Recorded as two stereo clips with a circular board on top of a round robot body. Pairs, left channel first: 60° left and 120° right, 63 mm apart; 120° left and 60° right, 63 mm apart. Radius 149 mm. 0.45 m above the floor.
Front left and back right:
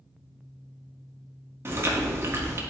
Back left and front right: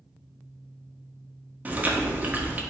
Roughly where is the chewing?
Right.